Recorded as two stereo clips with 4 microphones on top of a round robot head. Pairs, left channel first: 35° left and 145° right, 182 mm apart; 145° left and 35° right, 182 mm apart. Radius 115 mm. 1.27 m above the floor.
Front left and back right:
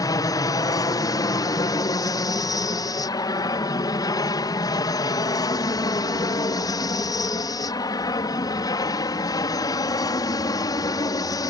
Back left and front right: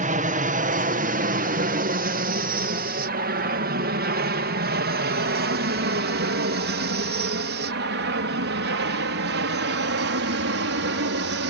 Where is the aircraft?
25° right; by 11.5 s 35° right.